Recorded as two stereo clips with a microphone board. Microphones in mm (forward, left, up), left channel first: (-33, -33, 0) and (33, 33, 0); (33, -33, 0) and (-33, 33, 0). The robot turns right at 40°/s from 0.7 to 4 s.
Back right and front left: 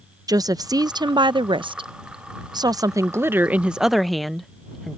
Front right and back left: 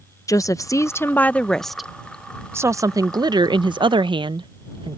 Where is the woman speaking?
5° left; by 5.0 s 135° left.